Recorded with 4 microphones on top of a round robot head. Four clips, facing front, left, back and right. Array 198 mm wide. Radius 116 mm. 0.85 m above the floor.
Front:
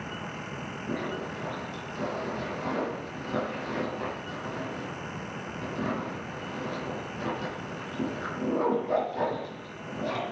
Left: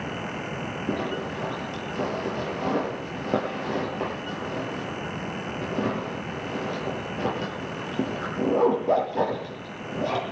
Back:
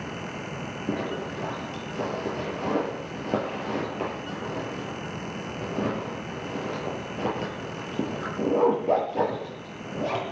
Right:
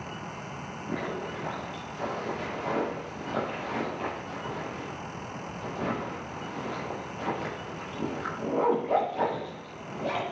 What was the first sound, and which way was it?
A zipper, 130° left.